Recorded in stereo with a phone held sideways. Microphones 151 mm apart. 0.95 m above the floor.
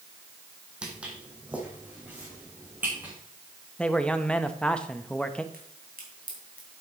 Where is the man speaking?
5° left (ahead or behind), 0.7 m.